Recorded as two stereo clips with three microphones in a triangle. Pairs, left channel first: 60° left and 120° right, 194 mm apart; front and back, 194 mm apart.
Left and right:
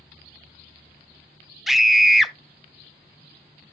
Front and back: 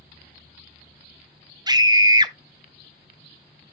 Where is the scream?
155° left, 0.7 m.